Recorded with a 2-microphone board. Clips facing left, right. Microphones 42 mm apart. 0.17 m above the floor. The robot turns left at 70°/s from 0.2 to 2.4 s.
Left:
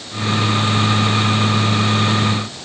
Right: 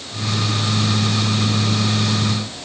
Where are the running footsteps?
No running footsteps in this recording.